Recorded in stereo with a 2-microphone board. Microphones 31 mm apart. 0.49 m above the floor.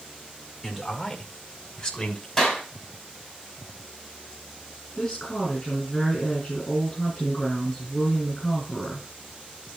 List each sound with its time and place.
0.6 s a man speaking: 5° left (ahead or behind), 1.8 m; by 2.3 s 25° left (ahead or behind), 2.5 m
2.4 s a clap: 10° left (ahead or behind), 3.5 m
4.9 s a woman speaking: 20° left (ahead or behind), 4.5 m